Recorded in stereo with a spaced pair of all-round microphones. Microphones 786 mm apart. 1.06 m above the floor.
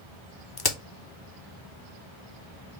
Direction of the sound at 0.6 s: 35° left (ahead or behind).